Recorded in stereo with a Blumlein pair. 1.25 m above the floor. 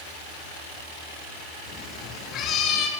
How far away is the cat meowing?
About 6 m.